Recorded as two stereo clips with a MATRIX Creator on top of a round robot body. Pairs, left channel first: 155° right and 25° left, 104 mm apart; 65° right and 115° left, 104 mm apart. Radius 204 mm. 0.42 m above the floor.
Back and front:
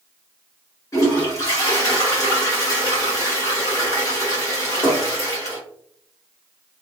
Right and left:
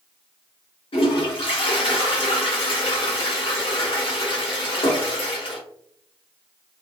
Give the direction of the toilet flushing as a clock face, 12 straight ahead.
3 o'clock.